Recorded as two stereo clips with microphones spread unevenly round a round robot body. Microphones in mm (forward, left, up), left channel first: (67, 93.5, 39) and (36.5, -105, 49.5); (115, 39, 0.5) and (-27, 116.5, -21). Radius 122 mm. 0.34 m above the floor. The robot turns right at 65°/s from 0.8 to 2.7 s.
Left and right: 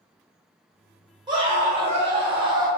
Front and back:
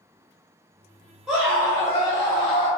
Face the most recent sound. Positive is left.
turn(degrees=-50)